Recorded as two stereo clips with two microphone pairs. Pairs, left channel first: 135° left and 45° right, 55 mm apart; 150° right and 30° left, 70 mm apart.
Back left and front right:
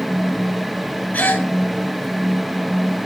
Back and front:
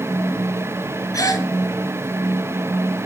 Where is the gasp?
165° right, 1.2 m.